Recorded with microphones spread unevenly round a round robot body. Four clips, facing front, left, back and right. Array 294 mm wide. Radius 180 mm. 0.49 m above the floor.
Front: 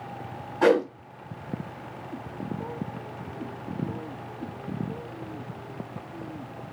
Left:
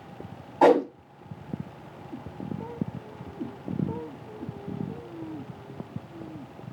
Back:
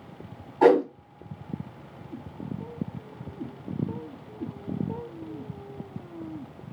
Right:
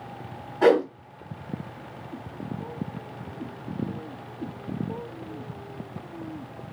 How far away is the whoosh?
About 1.5 m.